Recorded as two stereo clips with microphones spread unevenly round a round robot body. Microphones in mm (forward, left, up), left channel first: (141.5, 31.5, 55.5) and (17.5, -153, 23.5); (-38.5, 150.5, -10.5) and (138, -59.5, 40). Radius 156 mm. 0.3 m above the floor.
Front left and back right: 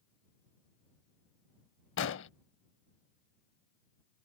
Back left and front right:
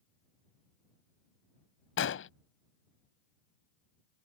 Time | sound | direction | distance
2.0 | an explosion | 95° left | ?